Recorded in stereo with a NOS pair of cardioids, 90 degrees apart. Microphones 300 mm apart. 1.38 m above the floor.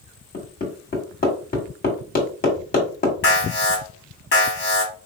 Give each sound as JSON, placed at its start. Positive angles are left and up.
{"t": 0.3, "sound": "hammering", "azimuth_deg": 30, "distance_m": 1.8}
{"t": 3.2, "sound": "an alarm", "azimuth_deg": 35, "distance_m": 1.8}